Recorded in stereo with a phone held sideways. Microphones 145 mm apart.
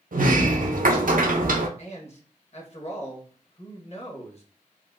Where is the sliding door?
75° right (ahead or behind), 0.6 m.